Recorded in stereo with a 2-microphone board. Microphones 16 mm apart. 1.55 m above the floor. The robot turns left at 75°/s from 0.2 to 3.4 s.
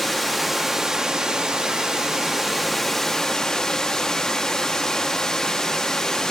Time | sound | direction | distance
0.0 | running water | 20° left | 1.1 m